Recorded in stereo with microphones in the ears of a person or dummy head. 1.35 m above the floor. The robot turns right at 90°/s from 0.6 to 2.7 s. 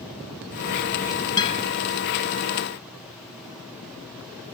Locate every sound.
1.4 s a guitar: 20° left (ahead or behind); by 1.6 s 45° left (ahead or behind)